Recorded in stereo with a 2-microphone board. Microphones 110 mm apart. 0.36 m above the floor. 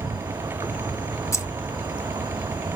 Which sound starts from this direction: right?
An insect, at 0.0 s.